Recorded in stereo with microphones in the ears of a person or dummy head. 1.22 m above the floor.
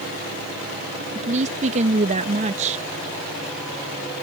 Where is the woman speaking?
40° right (ahead or behind).